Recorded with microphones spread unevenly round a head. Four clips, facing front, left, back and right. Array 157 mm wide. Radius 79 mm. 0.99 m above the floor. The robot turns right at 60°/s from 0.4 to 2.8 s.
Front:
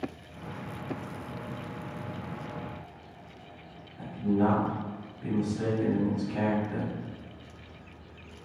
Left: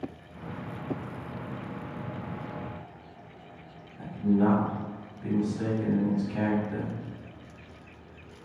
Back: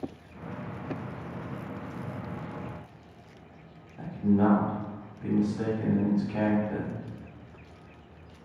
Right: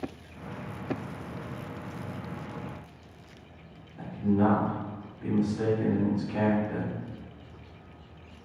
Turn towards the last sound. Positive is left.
turn(degrees=-145)